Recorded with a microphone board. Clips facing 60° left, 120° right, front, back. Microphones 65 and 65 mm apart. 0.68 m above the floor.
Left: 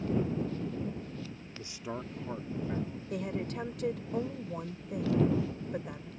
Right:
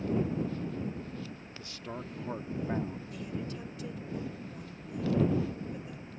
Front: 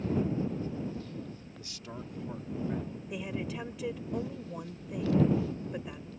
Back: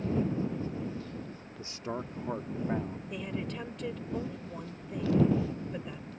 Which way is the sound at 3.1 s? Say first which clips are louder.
Left 4 dB, front 2 dB; 85° left.